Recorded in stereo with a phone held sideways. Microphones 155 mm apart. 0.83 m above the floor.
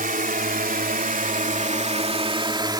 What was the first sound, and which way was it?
A drone, 60° right (ahead or behind).